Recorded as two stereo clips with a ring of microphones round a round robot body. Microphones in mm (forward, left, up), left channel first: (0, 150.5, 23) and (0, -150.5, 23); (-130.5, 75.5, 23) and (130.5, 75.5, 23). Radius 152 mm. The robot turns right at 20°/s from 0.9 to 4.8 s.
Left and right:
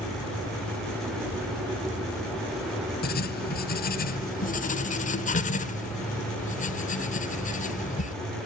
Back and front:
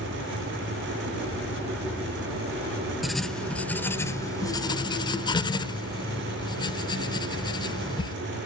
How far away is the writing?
About 1.1 m.